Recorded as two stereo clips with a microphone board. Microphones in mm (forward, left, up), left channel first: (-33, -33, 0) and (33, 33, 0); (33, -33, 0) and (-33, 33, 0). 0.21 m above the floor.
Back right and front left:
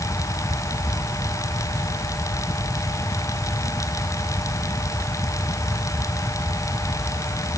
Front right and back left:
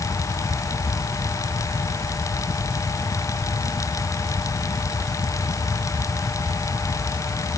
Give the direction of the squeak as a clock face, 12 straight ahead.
No squeak in this recording.